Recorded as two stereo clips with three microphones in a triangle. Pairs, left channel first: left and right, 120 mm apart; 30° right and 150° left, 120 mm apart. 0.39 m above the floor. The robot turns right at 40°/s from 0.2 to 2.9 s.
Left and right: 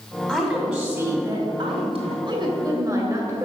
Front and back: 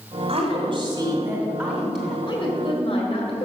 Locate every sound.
0.3 s a woman speaking: 170° left, 2.5 m; by 2.2 s 115° right, 2.5 m
2.3 s a woman speaking: 60° right, 2 m; by 3.5 s 35° right, 2 m